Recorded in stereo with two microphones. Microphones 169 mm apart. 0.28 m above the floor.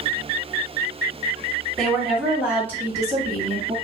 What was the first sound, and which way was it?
A woman speaking, 5° left (ahead or behind).